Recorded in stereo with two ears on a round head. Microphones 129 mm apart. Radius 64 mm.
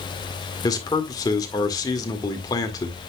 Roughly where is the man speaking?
Left.